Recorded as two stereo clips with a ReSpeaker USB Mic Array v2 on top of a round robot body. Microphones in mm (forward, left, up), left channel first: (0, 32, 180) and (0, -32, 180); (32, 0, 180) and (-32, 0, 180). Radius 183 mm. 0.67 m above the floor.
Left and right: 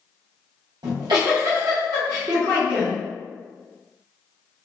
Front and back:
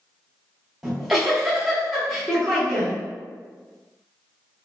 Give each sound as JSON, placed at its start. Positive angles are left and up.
{"t": 0.8, "sound": "a giggle", "azimuth_deg": -90, "distance_m": 0.8}